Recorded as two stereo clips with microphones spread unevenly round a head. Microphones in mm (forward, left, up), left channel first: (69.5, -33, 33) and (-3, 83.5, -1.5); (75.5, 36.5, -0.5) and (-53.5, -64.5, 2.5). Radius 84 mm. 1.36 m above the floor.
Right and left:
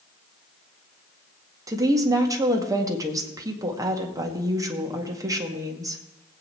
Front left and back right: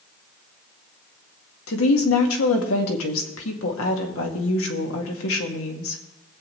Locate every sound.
1.7 s a woman speaking: 55° left, 2.0 m